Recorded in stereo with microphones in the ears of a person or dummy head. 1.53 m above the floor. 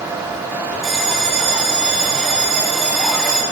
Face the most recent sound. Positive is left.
turn(degrees=0)  # may be behind; listen again after turning